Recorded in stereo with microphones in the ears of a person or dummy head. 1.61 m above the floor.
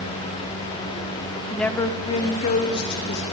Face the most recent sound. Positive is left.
turn(degrees=60)  # may be behind; listen again after turning